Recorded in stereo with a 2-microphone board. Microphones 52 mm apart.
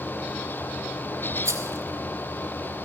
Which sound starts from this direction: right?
A rattle, at 1.4 s.